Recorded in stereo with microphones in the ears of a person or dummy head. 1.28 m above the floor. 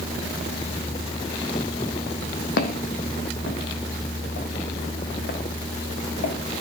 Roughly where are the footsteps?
Left.